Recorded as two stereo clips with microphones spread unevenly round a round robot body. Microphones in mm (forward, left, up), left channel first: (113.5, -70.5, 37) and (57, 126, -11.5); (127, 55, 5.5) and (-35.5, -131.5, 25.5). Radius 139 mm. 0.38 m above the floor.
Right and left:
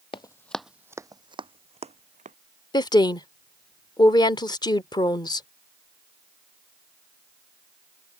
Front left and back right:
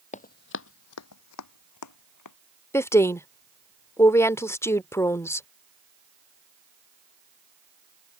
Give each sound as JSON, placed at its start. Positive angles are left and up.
{"t": 0.1, "sound": "running footsteps", "azimuth_deg": -15}
{"t": 2.7, "sound": "a woman speaking", "azimuth_deg": 0}